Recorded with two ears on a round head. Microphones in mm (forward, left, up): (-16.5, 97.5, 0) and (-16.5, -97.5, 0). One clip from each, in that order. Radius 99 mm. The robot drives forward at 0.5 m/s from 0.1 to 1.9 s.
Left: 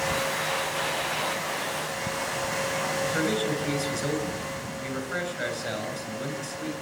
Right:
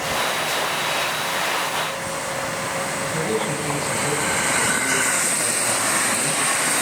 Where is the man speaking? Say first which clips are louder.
Right 4 dB; 45° left (ahead or behind), 8 m.